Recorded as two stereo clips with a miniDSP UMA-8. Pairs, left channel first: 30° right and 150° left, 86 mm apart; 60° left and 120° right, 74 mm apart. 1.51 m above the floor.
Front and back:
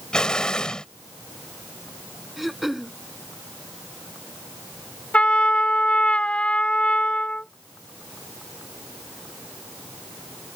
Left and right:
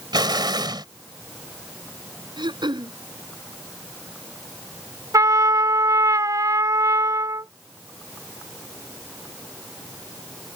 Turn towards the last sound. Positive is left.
turn(degrees=-105)